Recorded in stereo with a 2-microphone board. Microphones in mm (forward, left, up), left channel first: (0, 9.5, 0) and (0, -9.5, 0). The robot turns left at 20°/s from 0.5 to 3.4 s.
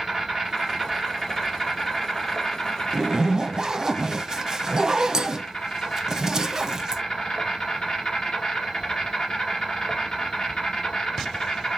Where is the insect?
155° right, 2 m; by 11.8 s 145° left, 2 m.